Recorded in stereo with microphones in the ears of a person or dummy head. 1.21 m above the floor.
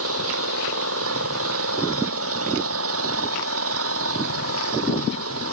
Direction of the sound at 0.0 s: 80° right.